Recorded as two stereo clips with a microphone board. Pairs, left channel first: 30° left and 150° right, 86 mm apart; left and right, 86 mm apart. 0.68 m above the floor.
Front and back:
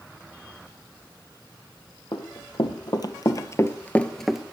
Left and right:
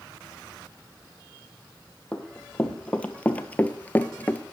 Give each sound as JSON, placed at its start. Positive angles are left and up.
{"t": 2.1, "sound": "running footsteps", "azimuth_deg": 10, "distance_m": 1.4}